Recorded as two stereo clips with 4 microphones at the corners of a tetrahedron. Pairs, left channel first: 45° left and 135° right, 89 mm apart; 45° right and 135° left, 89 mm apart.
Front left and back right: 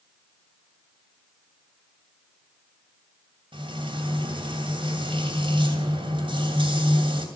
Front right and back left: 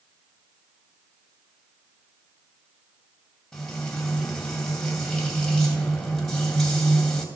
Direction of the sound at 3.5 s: 130° right.